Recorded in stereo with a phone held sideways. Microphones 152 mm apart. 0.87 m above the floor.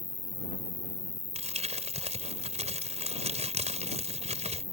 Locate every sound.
0.0 s an insect: 60° left (ahead or behind)
1.4 s crumpling: 45° right (ahead or behind)